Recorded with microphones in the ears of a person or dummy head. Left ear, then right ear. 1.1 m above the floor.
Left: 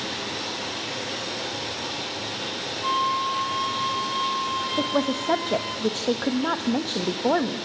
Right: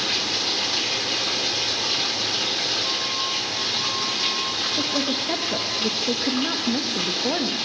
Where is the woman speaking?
35° left (ahead or behind), 1.1 m.